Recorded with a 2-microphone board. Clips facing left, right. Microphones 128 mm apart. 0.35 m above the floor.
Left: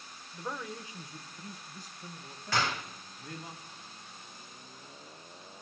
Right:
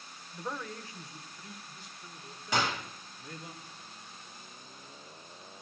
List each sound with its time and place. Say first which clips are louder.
0.3 s a man speaking: even; 5° right (ahead or behind), 0.8 m; by 3.5 s 55° left (ahead or behind), 2.5 m
2.5 s a gunshot: right 1 dB; 20° right (ahead or behind), 2 m